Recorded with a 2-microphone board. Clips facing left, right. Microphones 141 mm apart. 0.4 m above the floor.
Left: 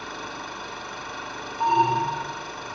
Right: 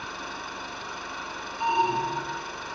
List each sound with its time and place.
0.0 s an engine running: 80° left, 6.5 m
1.6 s an alarm: 50° left (ahead or behind), 3 m